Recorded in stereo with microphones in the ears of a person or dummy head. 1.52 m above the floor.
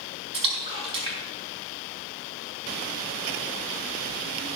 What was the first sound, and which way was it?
A splash, 25° right (ahead or behind).